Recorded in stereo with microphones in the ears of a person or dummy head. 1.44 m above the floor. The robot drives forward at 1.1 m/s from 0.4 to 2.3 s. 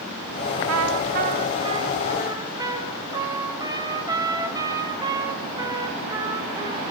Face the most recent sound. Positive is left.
turn(degrees=-20)  # may be behind; listen again after turning